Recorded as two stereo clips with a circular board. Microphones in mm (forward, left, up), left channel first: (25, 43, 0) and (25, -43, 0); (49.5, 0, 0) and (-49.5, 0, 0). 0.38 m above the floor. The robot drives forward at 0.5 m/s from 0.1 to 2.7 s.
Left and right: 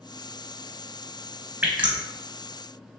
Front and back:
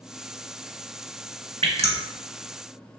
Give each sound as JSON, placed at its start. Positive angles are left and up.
{"t": 1.6, "sound": "dripping", "azimuth_deg": -160, "distance_m": 0.6}